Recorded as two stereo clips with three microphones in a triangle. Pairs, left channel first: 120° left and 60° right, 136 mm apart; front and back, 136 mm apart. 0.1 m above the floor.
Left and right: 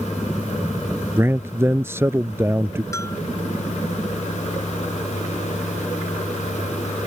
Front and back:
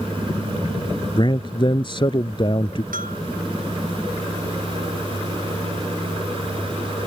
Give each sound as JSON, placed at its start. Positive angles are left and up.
{"t": 1.2, "sound": "a man speaking", "azimuth_deg": 0}
{"t": 2.9, "sound": "a bell", "azimuth_deg": -170}